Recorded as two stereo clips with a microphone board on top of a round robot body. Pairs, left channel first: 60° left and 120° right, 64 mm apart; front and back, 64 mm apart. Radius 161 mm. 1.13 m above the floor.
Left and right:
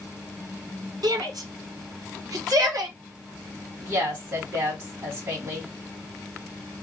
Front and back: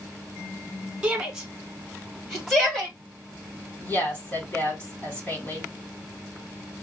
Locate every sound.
1.0 s a shout: 105° right, 1.7 m; by 3.0 s 85° right, 2.5 m
3.8 s a woman speaking: 65° right, 3 m